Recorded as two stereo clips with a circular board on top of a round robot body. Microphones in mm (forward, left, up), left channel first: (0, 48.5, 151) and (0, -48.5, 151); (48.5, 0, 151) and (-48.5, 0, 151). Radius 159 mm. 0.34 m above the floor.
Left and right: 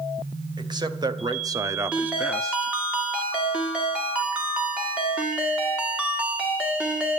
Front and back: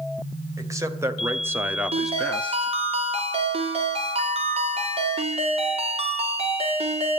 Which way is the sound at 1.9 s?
170° right.